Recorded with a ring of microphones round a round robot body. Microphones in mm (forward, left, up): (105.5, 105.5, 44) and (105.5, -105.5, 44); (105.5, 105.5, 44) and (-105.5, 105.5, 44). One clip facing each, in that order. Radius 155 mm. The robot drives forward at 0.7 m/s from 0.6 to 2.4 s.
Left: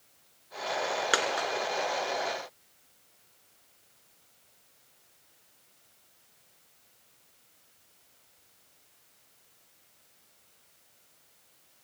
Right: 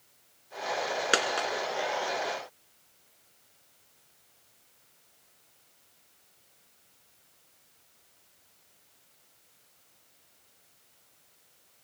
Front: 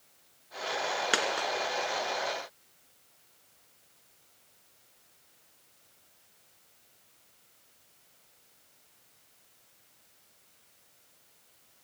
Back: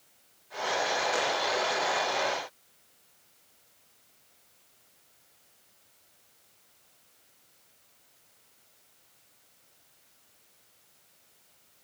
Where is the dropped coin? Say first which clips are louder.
Right 3 dB, back 2 dB; 30° right, 2.5 m.